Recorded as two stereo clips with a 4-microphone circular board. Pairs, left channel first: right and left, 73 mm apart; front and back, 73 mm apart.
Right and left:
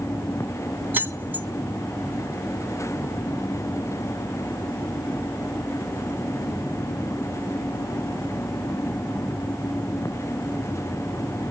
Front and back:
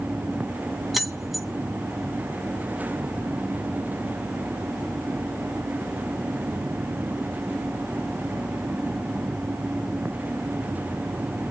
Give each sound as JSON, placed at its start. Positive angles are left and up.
{"t": 0.9, "sound": "keys jangling", "azimuth_deg": 95, "distance_m": 0.7}